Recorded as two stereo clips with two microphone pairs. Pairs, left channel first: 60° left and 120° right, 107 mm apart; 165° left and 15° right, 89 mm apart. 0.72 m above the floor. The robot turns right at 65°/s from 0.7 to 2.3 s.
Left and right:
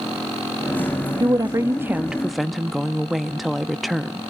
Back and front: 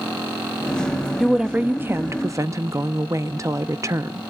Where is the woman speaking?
100° right, 0.9 m; by 4.2 s 30° right, 0.9 m.